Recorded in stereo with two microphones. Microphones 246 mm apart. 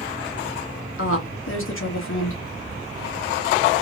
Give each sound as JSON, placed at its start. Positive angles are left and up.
{"t": 1.0, "sound": "a woman speaking", "side_deg": 55, "distance_m": 1.2}